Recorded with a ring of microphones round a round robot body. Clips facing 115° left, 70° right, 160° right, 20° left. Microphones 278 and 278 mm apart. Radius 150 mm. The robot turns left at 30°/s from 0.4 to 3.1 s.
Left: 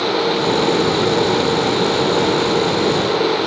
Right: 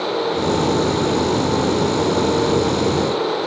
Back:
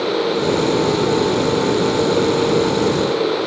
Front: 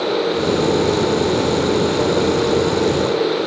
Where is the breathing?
No breathing in this recording.